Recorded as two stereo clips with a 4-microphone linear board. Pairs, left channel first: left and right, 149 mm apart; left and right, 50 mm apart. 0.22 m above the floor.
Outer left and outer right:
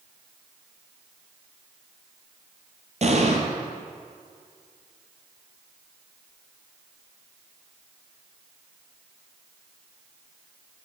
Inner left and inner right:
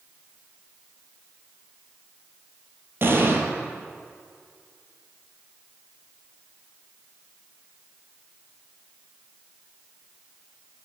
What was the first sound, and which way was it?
An explosion, 50° right (ahead or behind).